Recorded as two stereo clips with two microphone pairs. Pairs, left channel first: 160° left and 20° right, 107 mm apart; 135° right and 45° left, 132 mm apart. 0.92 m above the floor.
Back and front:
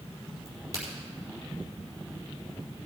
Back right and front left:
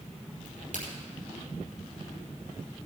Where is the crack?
40° left, 4 m.